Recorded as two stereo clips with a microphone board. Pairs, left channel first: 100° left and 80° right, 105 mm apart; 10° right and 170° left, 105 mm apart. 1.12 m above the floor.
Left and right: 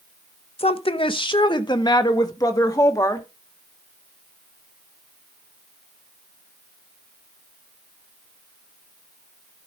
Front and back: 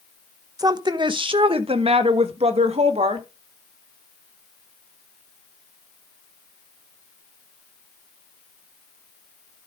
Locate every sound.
0.6 s a woman speaking: 115° left, 0.8 m; by 3.3 s 160° left, 1.9 m